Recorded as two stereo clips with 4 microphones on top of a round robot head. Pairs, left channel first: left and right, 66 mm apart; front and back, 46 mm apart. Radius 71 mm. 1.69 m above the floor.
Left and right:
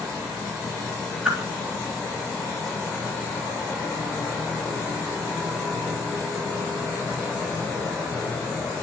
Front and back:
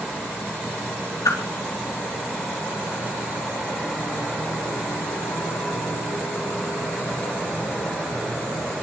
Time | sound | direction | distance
1.2 | a whoosh | 10° right | 3.5 m